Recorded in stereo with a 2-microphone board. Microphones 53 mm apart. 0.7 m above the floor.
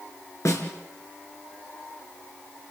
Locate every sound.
0.5 s a snare drum: 70° left (ahead or behind), 3 m